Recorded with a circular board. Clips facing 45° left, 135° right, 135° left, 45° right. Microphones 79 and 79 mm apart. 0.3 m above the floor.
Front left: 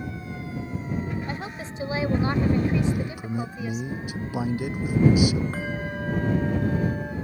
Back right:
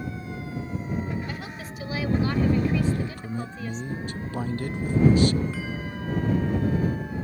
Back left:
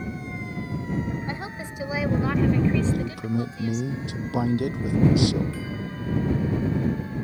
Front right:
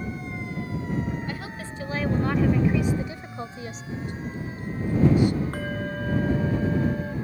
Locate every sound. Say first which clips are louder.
1.3 s a woman speaking: front left 3 dB, back left 1 dB; 90° left; by 3.8 s 25° right
2.8 s a man speaking: front left 1 dB, back left 1 dB; 125° left
5.5 s a bell: front left 3 dB, front right 3 dB; 5° right